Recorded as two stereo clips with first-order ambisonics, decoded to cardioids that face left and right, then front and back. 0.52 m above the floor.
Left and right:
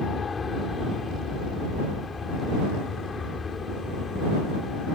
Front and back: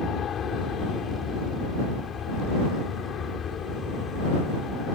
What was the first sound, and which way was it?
An aircraft, 30° left.